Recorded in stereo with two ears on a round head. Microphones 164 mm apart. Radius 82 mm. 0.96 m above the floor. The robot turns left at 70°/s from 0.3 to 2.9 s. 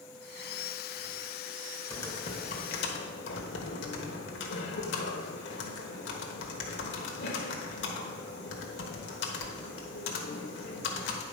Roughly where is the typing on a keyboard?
Behind.